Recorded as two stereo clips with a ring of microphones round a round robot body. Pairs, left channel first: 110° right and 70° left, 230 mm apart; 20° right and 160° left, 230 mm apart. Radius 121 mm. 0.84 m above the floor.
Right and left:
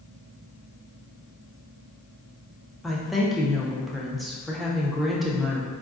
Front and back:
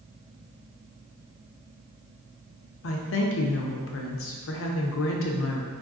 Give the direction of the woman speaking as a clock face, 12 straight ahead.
1 o'clock.